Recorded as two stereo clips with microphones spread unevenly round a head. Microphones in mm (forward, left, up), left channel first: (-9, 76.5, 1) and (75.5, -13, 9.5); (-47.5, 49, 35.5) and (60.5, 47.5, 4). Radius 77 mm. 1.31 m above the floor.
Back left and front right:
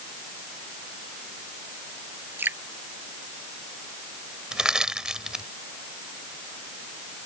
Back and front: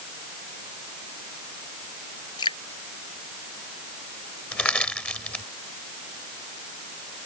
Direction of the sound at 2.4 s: 125° right.